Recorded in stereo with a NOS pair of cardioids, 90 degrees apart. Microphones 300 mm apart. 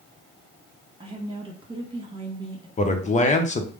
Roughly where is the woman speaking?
Ahead.